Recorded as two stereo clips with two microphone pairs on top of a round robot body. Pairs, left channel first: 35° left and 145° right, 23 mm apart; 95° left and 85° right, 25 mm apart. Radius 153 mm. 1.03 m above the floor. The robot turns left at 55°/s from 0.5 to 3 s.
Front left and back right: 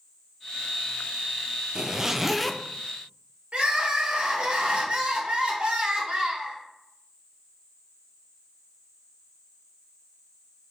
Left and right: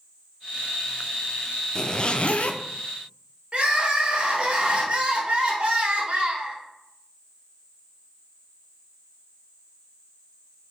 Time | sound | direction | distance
1.8 | a zipper | 155° left | 0.5 m
3.5 | crying | 125° right | 1.3 m